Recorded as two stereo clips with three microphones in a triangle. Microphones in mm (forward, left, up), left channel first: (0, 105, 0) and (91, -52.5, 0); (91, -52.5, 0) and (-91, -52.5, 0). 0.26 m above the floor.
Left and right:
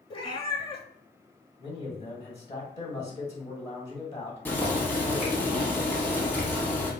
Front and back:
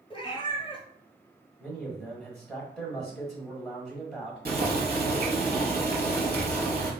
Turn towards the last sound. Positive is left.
turn(degrees=-160)